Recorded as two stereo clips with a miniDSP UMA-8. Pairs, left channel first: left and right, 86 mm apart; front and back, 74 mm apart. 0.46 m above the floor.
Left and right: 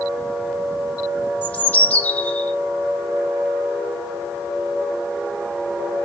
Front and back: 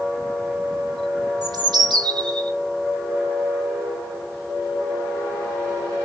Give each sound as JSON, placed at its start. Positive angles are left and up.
{"t": 1.4, "sound": "a bird", "azimuth_deg": 160, "distance_m": 0.5}